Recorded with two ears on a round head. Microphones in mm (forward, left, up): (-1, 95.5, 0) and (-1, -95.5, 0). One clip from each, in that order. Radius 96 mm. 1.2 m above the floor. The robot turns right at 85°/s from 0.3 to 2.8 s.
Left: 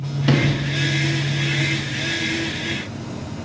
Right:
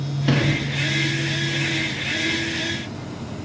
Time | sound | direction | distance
0.3 | a sliding door | 5° left | 1.8 m